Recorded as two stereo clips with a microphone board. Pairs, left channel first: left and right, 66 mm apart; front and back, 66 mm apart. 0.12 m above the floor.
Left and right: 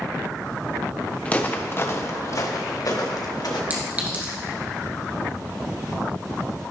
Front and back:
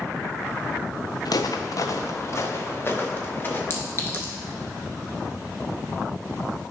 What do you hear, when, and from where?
1.2 s footsteps: 15° left, 0.9 m; by 3.6 s 60° left, 1.7 m
3.7 s a clink: 35° right, 1.5 m